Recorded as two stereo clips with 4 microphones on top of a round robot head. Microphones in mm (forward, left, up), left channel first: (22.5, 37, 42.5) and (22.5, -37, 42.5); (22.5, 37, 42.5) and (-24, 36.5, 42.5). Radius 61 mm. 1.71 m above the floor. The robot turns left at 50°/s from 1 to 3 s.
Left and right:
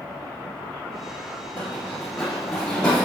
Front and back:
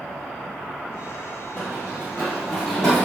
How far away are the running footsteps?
About 1.8 m.